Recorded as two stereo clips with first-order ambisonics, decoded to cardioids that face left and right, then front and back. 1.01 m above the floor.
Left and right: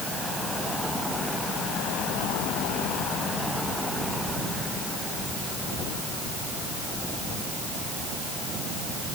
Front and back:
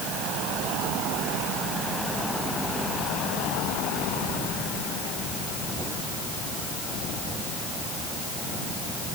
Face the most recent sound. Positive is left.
No sound to turn to.